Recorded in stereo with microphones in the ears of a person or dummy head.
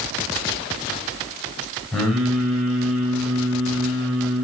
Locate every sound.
1.9 s singing: 5° left (ahead or behind), 6.5 m